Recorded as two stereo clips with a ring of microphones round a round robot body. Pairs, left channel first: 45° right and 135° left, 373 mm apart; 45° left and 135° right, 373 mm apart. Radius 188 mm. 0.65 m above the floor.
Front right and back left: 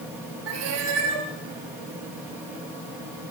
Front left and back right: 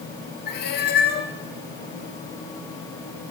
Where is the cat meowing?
110° left, 3.5 m.